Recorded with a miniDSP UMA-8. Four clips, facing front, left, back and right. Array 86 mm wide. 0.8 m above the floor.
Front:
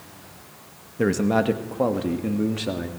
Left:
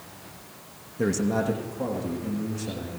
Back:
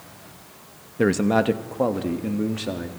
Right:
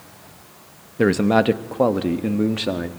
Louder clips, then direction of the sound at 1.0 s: Right 8 dB, back 1 dB; 110° right.